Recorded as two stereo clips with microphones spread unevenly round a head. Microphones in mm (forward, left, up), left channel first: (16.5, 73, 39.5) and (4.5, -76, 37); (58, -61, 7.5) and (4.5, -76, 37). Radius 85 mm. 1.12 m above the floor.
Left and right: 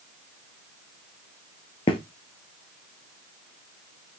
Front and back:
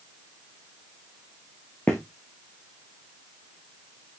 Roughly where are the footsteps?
Behind left.